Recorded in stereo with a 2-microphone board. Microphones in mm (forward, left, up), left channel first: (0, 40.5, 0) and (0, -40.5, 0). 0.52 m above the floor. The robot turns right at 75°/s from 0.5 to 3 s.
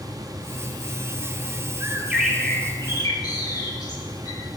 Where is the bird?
35° right, 0.8 m; by 4.4 s 55° left, 0.8 m.